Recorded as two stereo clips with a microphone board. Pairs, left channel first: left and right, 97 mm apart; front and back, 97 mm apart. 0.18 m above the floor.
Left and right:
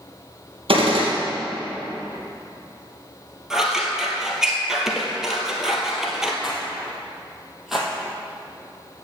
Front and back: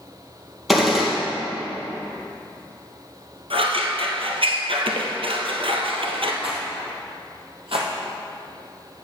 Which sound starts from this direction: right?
A gunshot, at 0.7 s.